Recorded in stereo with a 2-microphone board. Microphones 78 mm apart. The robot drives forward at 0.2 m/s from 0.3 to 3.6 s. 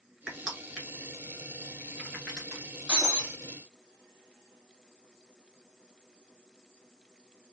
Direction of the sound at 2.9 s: 10° right (ahead or behind).